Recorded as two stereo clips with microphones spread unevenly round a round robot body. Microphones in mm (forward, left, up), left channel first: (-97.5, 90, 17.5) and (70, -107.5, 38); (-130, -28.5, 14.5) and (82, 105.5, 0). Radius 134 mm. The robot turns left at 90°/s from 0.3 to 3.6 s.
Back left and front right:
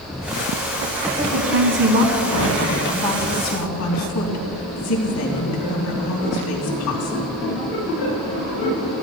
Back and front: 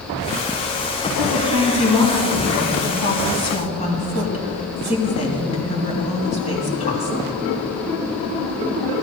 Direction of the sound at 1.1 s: 10° left.